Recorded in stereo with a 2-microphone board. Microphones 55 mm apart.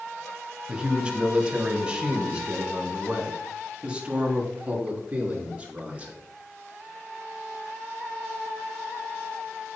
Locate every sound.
0.7 s a man speaking: 15° right (ahead or behind), 2 m; by 6.2 s 25° right (ahead or behind), 5.5 m